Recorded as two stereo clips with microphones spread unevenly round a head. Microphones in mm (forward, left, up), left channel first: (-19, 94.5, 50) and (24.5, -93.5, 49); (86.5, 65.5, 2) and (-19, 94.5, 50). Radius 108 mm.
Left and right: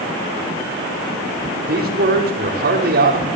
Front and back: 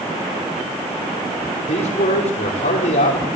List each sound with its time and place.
1.7 s a man speaking: 40° right, 5 m